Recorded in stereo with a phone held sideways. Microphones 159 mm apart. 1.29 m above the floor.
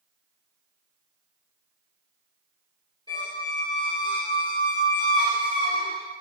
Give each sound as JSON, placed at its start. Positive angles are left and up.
{"t": 3.1, "sound": "a squeak", "side_deg": 30, "distance_m": 1.4}